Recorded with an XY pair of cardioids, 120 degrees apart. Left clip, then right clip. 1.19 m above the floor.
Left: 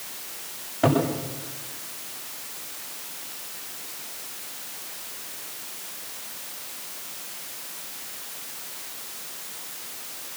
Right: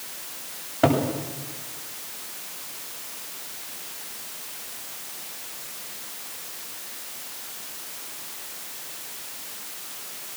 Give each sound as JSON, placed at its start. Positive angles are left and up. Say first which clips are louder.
{"t": 0.8, "sound": "a cupboard door", "louder": "right 1 dB", "azimuth_deg": -25, "distance_m": 8.5}